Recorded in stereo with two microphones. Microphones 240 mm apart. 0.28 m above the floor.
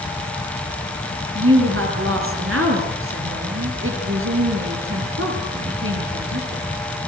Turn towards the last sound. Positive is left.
turn(degrees=-60)  # may be behind; listen again after turning